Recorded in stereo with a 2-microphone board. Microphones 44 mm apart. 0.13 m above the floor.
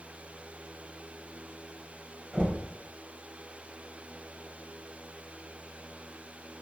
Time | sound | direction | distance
2.3 | knocking | 25° right (ahead or behind) | 1.3 m